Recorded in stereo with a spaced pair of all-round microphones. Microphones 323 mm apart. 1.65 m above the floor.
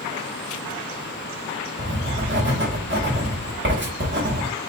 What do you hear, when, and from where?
1.8 s writing: 35° right (ahead or behind), 1.3 m